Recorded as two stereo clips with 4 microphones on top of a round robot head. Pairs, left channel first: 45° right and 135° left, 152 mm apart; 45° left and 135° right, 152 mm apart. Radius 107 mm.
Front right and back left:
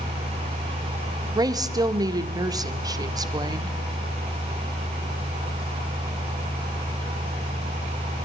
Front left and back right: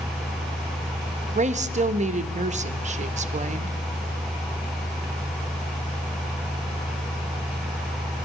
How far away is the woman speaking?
About 0.8 m.